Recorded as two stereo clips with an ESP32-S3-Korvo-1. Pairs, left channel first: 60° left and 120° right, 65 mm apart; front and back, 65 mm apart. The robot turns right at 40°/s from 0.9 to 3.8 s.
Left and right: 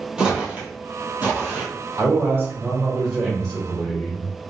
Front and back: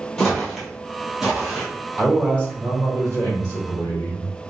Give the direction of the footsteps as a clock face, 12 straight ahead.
2 o'clock.